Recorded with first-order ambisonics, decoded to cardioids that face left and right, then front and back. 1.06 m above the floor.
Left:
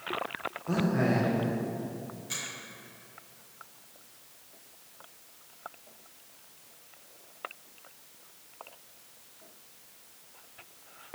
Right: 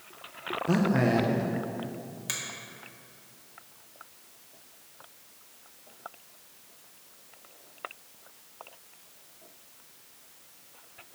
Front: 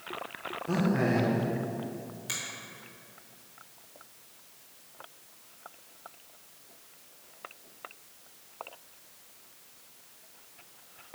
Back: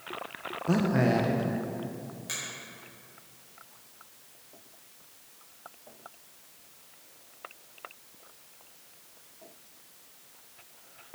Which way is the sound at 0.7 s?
140° right.